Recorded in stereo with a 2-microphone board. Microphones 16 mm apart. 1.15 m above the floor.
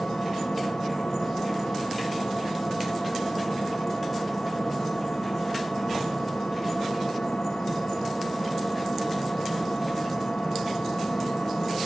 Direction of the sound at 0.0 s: 80° left.